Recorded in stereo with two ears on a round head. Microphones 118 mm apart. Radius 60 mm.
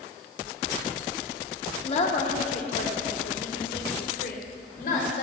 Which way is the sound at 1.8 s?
50° left (ahead or behind).